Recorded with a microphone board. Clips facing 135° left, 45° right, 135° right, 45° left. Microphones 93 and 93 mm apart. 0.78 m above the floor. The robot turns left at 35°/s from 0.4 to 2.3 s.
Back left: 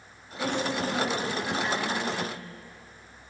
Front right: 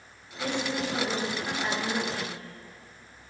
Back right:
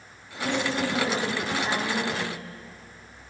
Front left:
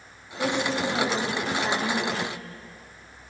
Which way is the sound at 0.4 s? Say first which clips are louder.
Back left 2 dB, front left 1 dB; 70° left.